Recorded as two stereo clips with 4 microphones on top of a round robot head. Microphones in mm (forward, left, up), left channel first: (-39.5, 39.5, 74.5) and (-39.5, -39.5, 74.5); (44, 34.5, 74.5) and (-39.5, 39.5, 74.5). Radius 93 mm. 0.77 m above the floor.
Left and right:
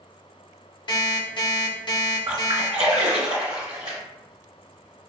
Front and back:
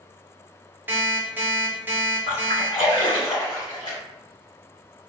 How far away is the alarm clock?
About 1.0 m.